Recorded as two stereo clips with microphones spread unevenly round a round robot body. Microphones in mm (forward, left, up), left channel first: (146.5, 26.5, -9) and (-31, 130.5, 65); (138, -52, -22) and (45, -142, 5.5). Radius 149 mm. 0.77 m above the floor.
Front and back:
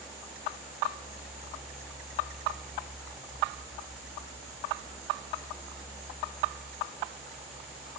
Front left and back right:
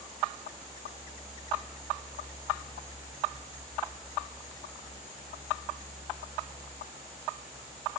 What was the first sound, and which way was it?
Only background noise.